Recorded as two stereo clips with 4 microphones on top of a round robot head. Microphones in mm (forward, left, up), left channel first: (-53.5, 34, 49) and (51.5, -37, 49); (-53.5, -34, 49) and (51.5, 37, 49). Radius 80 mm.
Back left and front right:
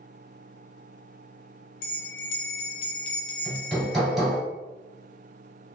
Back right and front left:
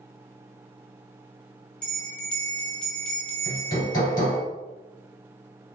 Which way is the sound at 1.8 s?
130° left.